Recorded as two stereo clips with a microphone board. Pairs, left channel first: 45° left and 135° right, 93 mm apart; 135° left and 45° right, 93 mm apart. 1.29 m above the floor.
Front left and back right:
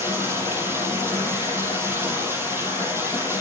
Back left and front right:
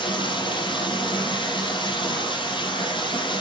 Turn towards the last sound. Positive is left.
turn(degrees=160)